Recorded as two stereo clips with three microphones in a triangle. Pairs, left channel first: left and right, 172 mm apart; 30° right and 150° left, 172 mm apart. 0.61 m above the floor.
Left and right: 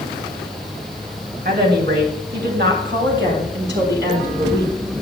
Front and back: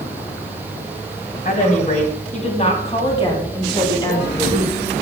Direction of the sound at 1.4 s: 70° right.